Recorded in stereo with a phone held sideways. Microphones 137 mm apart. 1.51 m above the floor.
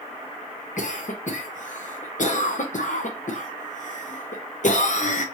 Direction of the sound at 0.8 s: 65° left (ahead or behind).